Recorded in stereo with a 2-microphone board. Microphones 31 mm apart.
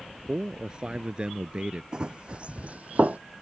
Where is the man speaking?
25° right (ahead or behind); by 1.8 s 35° right (ahead or behind).